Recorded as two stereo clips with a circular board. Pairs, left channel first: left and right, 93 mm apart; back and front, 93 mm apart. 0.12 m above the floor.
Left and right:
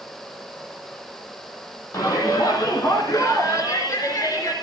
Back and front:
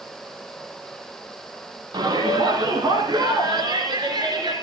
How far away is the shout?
About 4 m.